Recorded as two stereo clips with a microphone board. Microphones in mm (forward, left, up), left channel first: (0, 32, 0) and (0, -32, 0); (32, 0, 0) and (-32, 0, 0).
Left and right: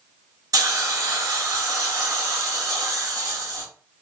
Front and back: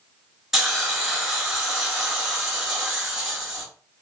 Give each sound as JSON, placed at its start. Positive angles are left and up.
{"t": 0.5, "sound": "a hiss", "azimuth_deg": -95, "distance_m": 1.2}